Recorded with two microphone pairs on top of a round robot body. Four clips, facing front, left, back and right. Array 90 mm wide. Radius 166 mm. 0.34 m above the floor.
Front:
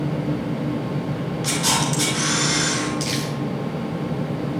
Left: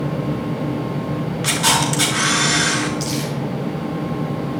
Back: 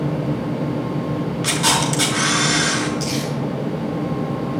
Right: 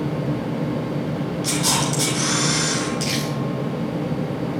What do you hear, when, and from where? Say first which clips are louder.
1.4 s a camera shutter: left 5 dB, back 2 dB; 130° left, 5.5 m
3.0 s crumpling: left 1 dB, back 2 dB; 30° right, 6.5 m